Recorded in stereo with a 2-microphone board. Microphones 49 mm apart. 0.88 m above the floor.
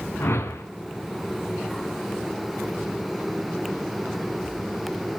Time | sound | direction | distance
0.2 | a whoosh | 55° left (ahead or behind) | 2 m